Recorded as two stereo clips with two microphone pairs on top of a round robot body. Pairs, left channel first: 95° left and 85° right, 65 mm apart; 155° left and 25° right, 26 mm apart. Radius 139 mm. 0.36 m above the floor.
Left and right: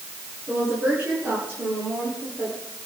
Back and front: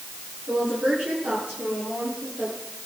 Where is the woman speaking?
15° right, 9.5 m.